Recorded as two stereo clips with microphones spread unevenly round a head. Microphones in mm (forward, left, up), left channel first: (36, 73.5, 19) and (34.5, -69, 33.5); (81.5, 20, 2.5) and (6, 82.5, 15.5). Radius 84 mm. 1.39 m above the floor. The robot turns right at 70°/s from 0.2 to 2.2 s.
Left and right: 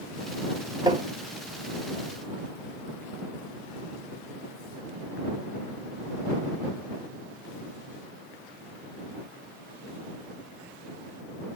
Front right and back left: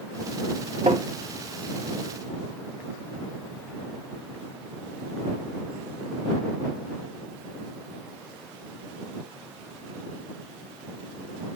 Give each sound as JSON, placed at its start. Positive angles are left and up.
{"t": 0.9, "sound": "tapping", "azimuth_deg": -160}